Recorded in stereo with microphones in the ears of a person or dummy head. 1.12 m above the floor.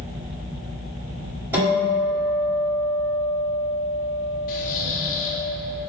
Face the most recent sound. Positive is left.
turn(degrees=40)  # may be behind; listen again after turning